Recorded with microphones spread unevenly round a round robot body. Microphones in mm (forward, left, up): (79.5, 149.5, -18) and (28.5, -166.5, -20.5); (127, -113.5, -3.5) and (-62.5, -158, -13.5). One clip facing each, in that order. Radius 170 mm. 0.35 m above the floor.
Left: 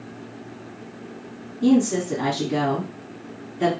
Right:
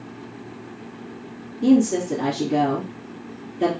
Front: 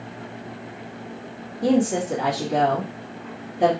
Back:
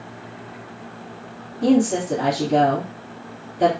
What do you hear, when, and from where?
1.6 s a woman speaking: 170° left, 1.8 m